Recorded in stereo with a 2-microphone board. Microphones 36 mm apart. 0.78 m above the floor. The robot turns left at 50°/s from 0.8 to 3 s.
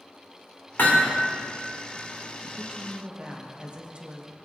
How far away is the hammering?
About 1.9 m.